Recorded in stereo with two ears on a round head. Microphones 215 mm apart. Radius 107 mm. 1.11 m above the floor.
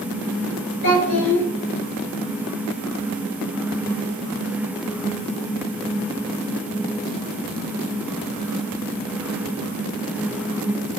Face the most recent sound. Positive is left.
turn(degrees=85)